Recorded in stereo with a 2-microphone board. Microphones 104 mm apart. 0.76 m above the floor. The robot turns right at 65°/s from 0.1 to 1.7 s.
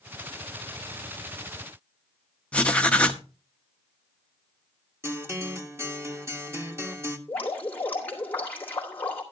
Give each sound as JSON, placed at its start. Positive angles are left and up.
{"t": 2.5, "sound": "writing", "side_deg": 10, "distance_m": 0.9}
{"t": 5.0, "sound": "a guitar", "side_deg": -25, "distance_m": 1.4}
{"t": 7.3, "sound": "dripping", "side_deg": 15, "distance_m": 3.5}